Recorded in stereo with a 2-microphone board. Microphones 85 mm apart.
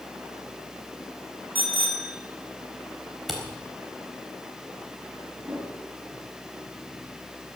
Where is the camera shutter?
Centre (ahead or behind), 3.5 m.